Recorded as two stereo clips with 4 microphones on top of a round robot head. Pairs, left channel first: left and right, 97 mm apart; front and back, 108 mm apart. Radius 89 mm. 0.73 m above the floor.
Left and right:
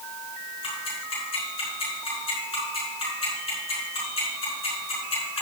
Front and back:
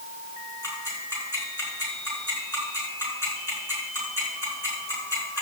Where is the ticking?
65° left, 6 m.